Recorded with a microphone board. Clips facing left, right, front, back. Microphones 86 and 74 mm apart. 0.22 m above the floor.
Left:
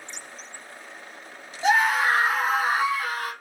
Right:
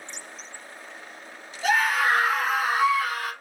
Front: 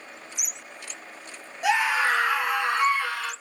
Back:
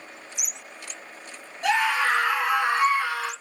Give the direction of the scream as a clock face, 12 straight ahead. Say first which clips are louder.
Left 2 dB, even; 10 o'clock.